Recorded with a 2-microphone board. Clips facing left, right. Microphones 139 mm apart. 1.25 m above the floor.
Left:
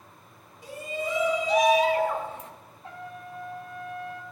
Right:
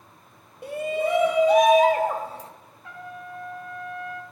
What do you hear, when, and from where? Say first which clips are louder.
0.6 s a shout: right 8 dB; 60° right (ahead or behind), 0.8 m; by 2.5 s 35° right (ahead or behind), 1.1 m
2.8 s a trumpet: right 1 dB; 30° left (ahead or behind), 0.9 m